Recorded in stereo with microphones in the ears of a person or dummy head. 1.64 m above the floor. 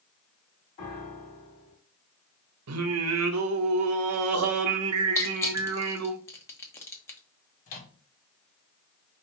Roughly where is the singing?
Right.